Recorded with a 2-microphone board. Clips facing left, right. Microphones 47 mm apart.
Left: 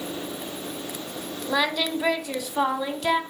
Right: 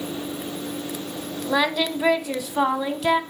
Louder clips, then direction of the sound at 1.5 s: Right 2 dB; 10° right (ahead or behind).